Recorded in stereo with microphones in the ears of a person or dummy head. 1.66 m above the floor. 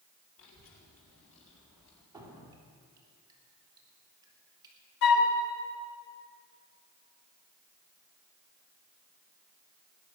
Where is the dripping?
25° right (ahead or behind), 3 m.